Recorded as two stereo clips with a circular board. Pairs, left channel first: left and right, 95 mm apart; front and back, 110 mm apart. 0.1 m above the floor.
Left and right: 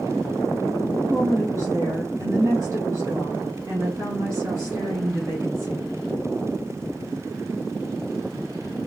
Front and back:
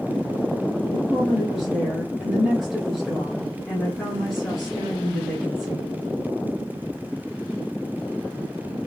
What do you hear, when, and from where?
0.8 s a woman speaking: 85° right, 1.5 m